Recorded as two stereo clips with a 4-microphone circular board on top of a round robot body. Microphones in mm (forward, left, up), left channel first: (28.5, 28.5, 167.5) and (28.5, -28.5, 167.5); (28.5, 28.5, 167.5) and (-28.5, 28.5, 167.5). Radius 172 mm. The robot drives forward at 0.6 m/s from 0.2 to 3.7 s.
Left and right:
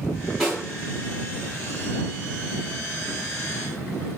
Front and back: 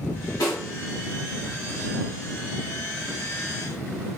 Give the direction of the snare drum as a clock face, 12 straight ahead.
12 o'clock.